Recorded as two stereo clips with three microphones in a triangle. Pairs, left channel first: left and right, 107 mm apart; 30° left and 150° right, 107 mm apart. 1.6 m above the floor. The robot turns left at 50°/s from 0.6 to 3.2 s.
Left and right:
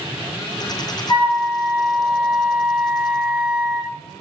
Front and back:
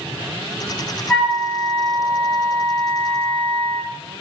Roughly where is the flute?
Left.